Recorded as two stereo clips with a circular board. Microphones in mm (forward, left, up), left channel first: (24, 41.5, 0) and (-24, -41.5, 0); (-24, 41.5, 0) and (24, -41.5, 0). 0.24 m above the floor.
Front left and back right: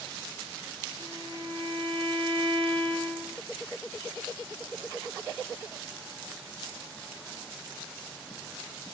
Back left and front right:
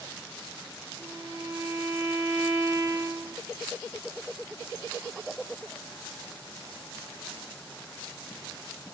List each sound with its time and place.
1.0 s a violin: 120° right, 1.7 m